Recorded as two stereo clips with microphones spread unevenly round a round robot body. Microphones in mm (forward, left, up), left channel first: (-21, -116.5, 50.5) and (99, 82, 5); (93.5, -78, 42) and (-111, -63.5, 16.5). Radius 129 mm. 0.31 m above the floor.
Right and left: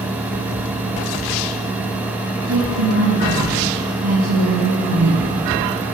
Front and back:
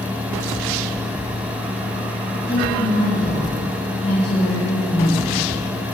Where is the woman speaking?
60° left, 8 m.